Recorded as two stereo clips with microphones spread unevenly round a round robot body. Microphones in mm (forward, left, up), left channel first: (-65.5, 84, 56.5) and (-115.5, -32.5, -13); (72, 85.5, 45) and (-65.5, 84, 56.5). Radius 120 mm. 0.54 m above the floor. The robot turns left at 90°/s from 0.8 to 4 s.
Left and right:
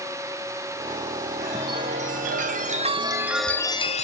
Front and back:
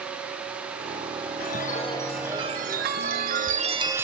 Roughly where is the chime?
Ahead.